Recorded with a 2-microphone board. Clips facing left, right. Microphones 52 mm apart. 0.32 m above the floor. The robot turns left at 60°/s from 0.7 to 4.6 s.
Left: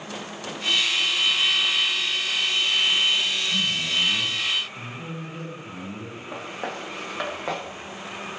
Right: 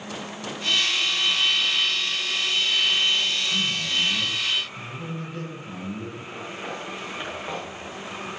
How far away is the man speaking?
About 6.5 m.